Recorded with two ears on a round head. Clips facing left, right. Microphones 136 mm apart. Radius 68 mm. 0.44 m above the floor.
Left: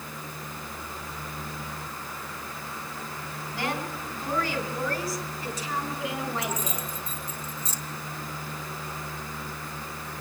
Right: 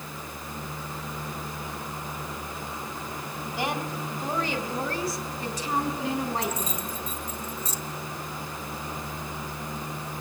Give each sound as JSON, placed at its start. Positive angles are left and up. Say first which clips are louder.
{"t": 3.5, "sound": "a woman speaking", "louder": "right 1 dB", "side_deg": -15, "distance_m": 3.0}
{"t": 6.4, "sound": "keys jangling", "louder": "right 1 dB", "side_deg": 65, "distance_m": 2.0}